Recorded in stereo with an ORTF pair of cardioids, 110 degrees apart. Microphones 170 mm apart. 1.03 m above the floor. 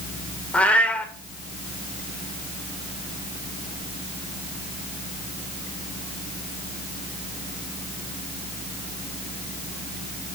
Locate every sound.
0.5 s a cat meowing: 5° left, 2 m